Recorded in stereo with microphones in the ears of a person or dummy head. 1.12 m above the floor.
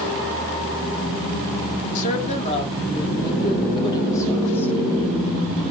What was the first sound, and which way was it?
A woman speaking, 45° left (ahead or behind).